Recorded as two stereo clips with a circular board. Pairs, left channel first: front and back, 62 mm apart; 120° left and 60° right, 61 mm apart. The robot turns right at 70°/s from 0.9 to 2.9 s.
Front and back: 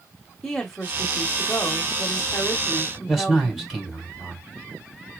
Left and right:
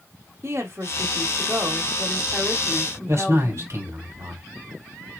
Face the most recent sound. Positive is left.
turn(degrees=-85)